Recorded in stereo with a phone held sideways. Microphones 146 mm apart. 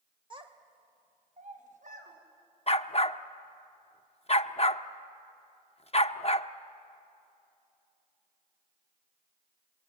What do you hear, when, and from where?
0.3 s a child speaking: 35° right (ahead or behind), 2.5 m; by 2.2 s 65° right (ahead or behind), 4.5 m
2.7 s a dog barking: 45° left (ahead or behind), 0.6 m